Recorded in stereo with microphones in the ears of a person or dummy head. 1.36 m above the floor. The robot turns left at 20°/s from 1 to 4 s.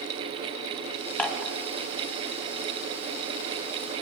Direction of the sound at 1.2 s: 10° left (ahead or behind).